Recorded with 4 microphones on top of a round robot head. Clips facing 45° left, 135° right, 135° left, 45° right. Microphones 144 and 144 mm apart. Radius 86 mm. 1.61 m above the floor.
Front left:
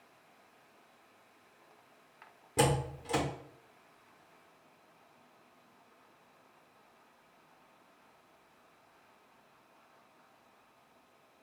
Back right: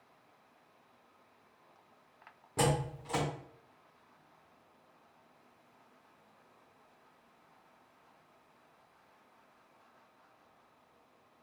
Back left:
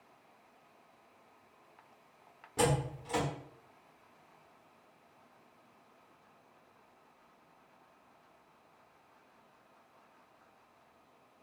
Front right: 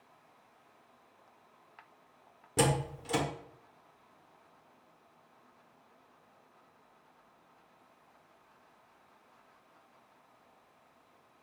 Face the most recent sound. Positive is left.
turn(degrees=-20)